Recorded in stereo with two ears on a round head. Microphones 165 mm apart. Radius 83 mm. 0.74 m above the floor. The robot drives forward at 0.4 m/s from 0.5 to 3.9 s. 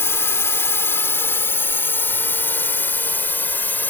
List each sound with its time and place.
0.0 s a drone: 15° left (ahead or behind); by 3.9 s 10° left (ahead or behind)